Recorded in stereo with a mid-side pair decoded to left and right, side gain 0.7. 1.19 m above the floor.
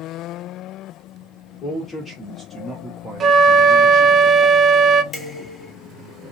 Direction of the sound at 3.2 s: 35° right.